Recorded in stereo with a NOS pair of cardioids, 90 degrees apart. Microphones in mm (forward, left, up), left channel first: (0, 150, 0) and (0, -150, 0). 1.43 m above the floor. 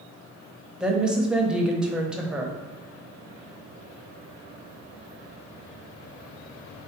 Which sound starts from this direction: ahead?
A woman speaking, at 0.8 s.